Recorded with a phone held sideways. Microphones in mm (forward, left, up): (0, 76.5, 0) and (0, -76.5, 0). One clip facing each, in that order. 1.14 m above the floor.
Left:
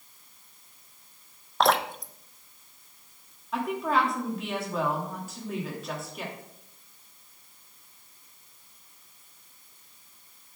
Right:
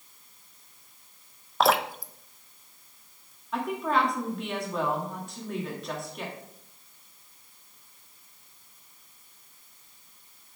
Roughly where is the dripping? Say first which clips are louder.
Even; centre.